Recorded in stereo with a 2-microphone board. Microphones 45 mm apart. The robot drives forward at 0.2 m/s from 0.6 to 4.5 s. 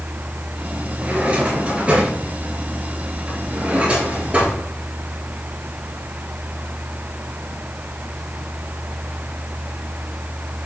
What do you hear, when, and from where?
1.0 s a drawer: 30° right (ahead or behind), 5.5 m; by 4.6 s 25° right (ahead or behind), 6 m